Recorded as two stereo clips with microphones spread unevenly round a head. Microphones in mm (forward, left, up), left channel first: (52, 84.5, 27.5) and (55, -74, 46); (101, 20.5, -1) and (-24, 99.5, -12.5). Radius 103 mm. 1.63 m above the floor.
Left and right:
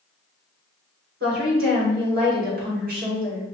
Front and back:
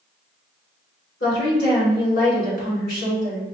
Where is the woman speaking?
65° right, 2 m.